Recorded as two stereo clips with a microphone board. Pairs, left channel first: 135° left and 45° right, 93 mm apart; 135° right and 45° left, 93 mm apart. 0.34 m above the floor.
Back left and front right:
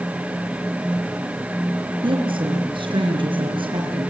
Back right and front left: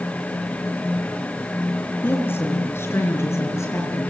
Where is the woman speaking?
65° right, 4.5 m; by 4.1 s 75° right, 6.5 m.